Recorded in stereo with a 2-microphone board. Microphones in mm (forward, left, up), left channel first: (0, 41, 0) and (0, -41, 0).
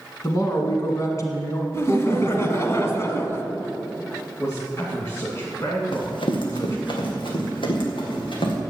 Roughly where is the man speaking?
Left.